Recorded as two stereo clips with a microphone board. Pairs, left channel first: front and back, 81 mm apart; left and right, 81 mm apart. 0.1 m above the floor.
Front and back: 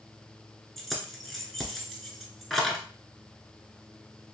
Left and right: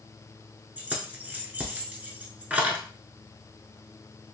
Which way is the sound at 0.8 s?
85° right.